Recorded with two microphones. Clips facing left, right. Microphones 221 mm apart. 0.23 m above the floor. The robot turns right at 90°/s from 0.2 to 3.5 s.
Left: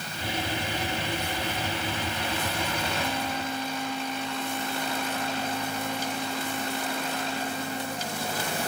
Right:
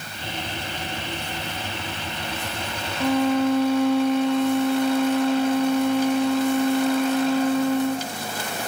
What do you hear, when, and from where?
3.0 s a violin: 115° right, 0.9 m; by 8.1 s 70° right, 0.9 m